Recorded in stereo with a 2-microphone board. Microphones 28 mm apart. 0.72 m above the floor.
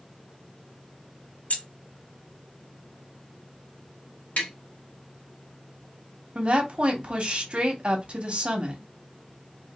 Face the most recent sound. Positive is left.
turn(degrees=-45)  # may be behind; listen again after turning